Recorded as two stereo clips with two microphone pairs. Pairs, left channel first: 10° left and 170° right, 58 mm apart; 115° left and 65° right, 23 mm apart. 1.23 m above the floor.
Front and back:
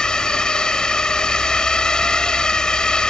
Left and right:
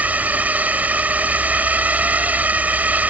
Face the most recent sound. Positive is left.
turn(degrees=-70)